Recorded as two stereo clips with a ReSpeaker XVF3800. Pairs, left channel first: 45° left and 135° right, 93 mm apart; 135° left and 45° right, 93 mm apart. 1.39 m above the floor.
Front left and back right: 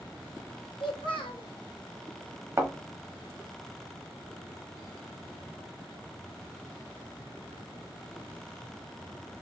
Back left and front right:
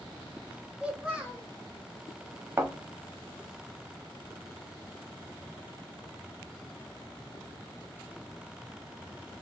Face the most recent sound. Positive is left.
turn(degrees=-95)